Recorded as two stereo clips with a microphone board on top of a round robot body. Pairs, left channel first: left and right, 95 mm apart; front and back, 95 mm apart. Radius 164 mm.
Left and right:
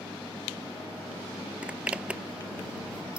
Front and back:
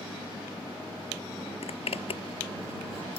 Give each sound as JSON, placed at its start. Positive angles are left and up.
{"t": 1.6, "sound": "a zipper", "azimuth_deg": -10}